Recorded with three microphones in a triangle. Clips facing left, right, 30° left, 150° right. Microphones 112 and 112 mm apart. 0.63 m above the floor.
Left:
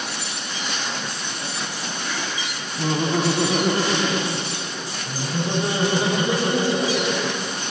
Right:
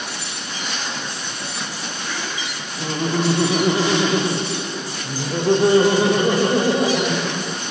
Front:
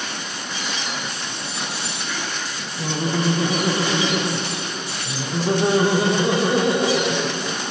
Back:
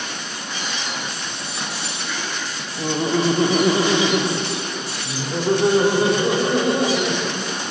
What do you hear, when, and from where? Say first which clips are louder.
2.8 s laughter: even, back 3 dB; 150° left, 0.9 m; by 7.6 s 55° right, 2 m